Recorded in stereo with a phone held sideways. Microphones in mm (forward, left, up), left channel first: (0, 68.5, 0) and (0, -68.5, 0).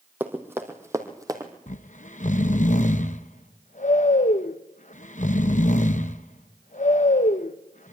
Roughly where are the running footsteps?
Centre.